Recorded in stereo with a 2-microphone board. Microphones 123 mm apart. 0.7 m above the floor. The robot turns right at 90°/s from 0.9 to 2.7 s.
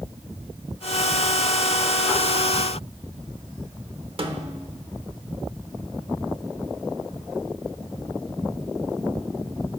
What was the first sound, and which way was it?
A snare drum, 45° right (ahead or behind).